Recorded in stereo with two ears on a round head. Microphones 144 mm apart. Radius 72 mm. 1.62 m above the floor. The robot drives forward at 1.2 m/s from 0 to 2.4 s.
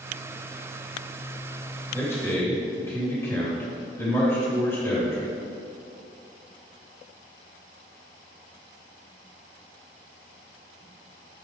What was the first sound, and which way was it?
A man speaking, 20° left (ahead or behind).